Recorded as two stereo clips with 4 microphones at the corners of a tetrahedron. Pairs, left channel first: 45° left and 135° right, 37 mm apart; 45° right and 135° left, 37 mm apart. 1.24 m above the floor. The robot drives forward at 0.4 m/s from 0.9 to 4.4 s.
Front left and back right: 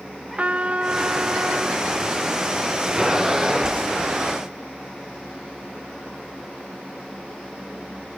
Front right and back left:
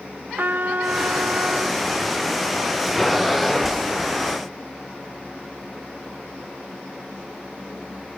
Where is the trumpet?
170° left; by 1.8 s 175° left.